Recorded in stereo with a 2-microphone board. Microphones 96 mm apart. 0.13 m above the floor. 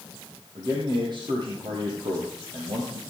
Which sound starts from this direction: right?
A man speaking, at 0.6 s.